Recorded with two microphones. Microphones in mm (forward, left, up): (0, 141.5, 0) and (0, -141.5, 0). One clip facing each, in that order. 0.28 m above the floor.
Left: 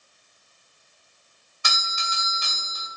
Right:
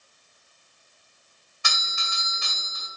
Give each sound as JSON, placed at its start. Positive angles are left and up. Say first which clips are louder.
{"t": 1.6, "sound": "a doorbell", "louder": "left 3 dB", "side_deg": 20, "distance_m": 1.6}